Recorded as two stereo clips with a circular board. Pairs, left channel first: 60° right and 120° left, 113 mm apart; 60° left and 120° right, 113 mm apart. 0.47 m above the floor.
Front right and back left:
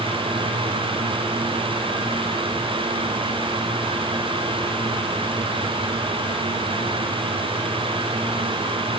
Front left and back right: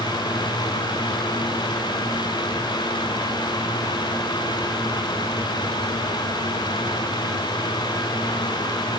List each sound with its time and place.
Only background noise.